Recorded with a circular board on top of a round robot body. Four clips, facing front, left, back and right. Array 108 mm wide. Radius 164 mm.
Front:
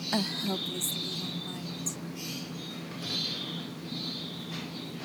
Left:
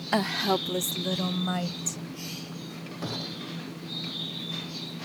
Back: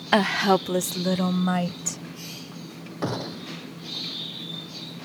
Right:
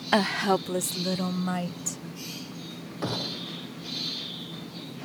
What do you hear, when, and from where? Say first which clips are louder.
0.1 s a woman speaking: right 2 dB, back 12 dB; 160° right; by 2.0 s straight behind
3.0 s a gunshot: right 4 dB, back 14 dB; 160° right